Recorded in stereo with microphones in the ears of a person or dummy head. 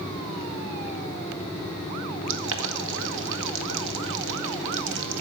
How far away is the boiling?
About 1.8 m.